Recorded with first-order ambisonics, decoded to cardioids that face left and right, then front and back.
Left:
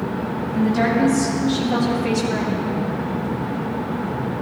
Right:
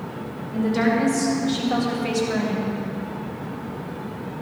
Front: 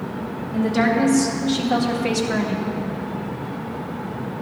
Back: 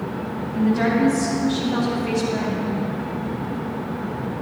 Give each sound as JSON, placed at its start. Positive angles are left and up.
{"t": 0.5, "sound": "a woman speaking", "azimuth_deg": -30, "distance_m": 3.0}